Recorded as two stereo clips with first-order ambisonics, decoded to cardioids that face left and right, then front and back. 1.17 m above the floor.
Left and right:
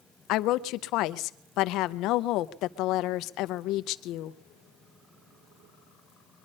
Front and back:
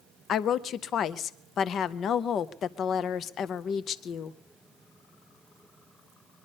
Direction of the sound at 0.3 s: 55° left.